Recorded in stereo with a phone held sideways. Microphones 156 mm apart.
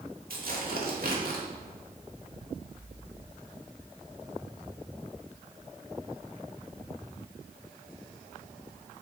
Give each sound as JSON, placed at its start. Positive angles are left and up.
{"t": 0.3, "sound": "tearing paper", "side_deg": -70, "distance_m": 1.7}